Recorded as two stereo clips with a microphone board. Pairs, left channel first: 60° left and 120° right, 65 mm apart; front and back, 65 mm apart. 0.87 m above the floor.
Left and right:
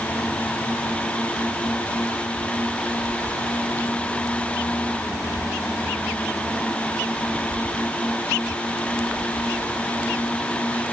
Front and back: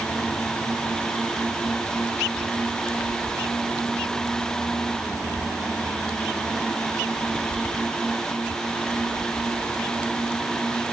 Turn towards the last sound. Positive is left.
No sound to turn to.